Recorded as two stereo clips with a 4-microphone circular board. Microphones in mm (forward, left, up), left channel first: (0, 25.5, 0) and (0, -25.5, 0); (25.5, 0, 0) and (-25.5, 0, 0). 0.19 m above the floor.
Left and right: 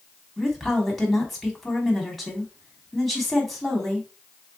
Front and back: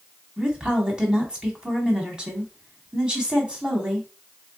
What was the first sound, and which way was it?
A woman speaking, 170° left.